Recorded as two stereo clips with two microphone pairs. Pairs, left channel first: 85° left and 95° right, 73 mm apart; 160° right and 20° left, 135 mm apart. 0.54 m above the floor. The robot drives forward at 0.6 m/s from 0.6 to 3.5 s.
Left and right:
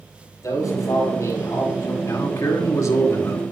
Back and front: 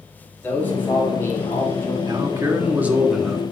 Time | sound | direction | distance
0.4 | a man speaking | 125° left | 4.5 m
2.0 | a man speaking | 70° left | 1.6 m